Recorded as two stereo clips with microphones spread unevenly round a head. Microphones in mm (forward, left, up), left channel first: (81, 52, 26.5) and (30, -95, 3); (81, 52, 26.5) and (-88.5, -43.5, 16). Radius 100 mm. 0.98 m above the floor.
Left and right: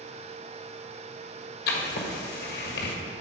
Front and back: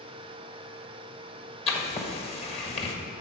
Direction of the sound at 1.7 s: 90° left.